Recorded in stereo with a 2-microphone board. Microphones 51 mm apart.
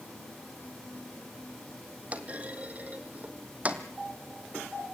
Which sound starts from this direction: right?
A clunk, at 2.1 s.